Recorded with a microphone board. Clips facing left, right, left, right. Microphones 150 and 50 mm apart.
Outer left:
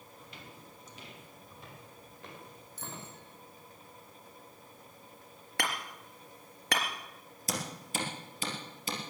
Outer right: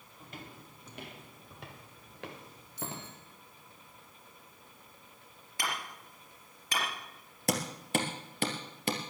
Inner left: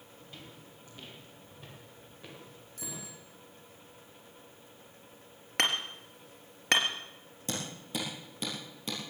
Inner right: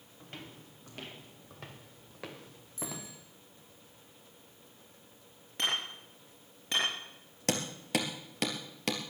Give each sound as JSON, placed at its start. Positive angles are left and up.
{"t": 0.2, "sound": "footsteps", "side_deg": -45, "distance_m": 3.0}
{"t": 2.8, "sound": "a bicycle bell", "side_deg": 55, "distance_m": 8.5}
{"t": 5.6, "sound": "hammering", "side_deg": 75, "distance_m": 3.5}
{"t": 7.5, "sound": "hammering", "side_deg": -65, "distance_m": 2.5}